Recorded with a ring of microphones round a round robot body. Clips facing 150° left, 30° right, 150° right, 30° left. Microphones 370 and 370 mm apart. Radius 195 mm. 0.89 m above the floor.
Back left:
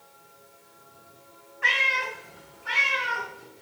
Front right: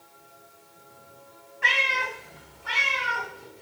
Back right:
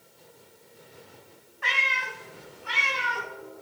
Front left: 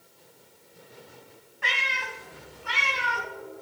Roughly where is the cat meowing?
Ahead right.